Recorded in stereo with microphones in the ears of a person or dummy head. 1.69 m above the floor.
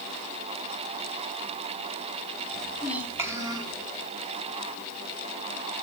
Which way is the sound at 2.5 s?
Centre (ahead or behind).